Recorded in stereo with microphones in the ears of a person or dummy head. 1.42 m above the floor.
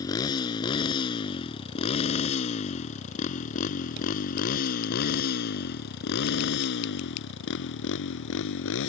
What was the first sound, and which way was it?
A motorcycle, 20° left (ahead or behind).